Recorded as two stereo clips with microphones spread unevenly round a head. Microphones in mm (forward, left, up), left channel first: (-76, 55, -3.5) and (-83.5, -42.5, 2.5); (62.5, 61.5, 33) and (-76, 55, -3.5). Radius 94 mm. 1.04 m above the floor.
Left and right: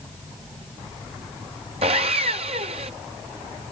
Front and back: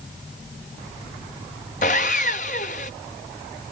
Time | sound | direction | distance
1.8 | sawing | 45° right | ?